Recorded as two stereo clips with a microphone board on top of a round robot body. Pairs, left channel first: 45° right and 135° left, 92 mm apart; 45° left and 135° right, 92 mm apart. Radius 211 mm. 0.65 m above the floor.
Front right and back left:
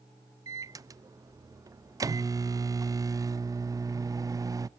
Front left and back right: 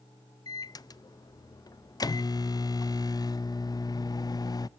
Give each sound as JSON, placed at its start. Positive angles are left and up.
{"t": 0.5, "sound": "a microwave", "azimuth_deg": 85, "distance_m": 0.6}